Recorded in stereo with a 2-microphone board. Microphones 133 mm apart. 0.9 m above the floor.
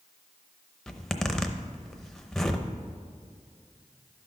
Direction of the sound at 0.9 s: 5° left (ahead or behind).